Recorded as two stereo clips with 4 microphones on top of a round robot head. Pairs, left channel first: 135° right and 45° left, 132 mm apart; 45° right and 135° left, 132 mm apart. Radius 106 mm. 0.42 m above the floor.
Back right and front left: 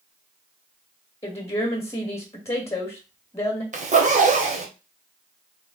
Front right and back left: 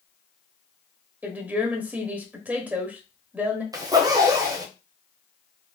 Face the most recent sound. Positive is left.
turn(degrees=70)